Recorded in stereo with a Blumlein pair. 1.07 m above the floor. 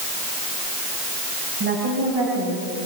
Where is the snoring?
I don't hear snoring.